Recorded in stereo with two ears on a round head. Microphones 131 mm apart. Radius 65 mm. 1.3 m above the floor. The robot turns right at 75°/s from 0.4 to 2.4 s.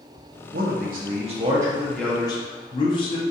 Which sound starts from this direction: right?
A man speaking, at 0.5 s.